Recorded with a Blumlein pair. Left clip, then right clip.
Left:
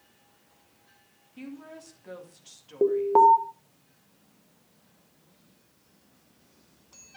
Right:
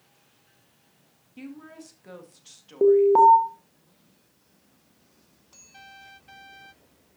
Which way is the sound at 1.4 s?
5° right.